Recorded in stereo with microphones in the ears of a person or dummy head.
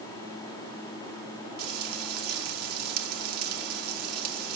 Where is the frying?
75° right (ahead or behind), 4 m.